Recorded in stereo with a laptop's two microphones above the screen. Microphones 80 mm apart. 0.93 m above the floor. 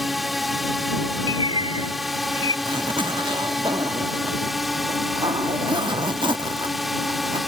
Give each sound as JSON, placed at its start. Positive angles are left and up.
{"t": 0.0, "sound": "a drone", "side_deg": 0}
{"t": 1.3, "sound": "a bird", "side_deg": -70}
{"t": 2.6, "sound": "a zipper", "side_deg": -80}